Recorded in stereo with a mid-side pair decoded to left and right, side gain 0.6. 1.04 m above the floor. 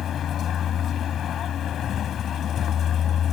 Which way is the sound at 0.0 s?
50° left.